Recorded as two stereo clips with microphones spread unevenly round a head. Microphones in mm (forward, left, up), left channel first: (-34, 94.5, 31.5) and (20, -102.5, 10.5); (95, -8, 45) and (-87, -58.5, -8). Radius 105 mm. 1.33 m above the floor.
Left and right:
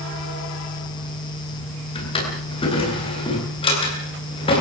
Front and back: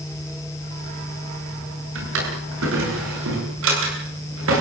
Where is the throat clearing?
No throat clearing in this recording.